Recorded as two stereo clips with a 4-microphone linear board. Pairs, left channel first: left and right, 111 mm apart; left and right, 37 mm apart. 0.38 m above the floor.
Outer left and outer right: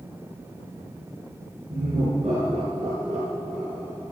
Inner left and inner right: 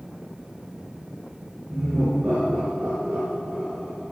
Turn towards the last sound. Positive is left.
turn(degrees=-70)  # may be behind; listen again after turning